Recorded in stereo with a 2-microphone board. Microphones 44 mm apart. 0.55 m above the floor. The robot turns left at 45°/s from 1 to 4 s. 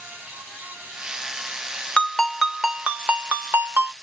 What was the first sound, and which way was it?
A ringtone, 20° left.